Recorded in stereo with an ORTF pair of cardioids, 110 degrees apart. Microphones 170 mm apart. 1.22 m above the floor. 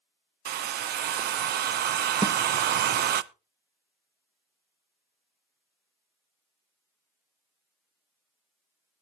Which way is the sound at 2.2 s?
25° right.